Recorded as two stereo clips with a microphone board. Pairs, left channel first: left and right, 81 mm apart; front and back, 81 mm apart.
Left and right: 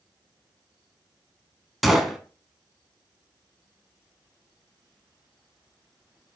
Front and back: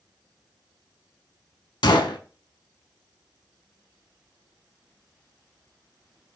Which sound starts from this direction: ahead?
A gunshot, at 1.8 s.